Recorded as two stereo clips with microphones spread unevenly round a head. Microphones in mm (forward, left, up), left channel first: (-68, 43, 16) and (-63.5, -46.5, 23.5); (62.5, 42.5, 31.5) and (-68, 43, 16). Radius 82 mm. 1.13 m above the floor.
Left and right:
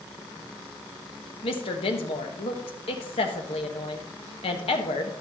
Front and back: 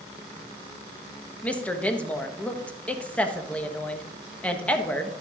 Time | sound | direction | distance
1.4 | a woman speaking | 80° left | 1.3 m